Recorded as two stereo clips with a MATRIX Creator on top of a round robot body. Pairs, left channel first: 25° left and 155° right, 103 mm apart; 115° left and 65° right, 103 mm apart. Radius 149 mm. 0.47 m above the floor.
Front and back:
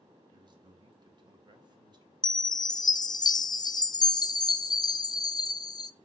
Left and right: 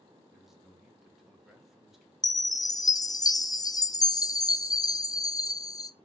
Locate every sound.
0.3 s a man speaking: 155° right, 1.7 m
2.2 s a chime: 65° left, 0.5 m